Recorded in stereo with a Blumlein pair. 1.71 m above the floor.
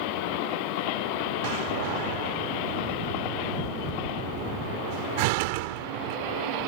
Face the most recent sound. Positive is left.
turn(degrees=-45)